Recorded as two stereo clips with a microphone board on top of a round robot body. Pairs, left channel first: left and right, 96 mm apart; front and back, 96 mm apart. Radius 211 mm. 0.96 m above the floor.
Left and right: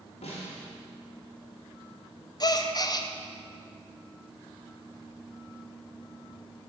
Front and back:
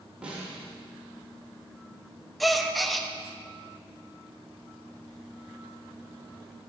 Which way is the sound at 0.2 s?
100° left.